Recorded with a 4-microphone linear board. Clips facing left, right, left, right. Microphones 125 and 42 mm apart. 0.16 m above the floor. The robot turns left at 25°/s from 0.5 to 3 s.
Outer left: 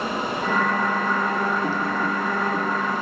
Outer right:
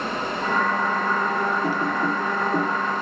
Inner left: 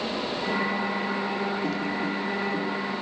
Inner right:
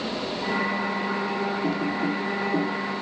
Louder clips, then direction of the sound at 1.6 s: Outer right 1 dB, inner right 2 dB; 10° right (ahead or behind).